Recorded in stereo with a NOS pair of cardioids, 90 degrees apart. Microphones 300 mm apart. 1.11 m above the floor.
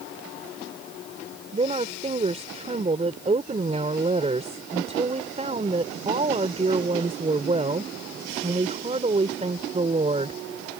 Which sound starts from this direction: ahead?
A woman speaking, at 1.5 s.